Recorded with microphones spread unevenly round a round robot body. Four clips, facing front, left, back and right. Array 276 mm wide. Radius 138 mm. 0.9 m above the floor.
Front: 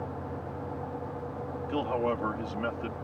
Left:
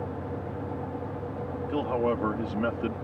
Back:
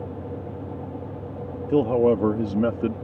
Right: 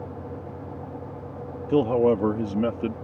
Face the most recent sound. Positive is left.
turn(degrees=-165)